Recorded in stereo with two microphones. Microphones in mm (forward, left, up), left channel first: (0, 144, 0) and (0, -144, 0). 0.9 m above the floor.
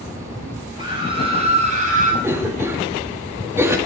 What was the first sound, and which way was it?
A scream, 15° right (ahead or behind).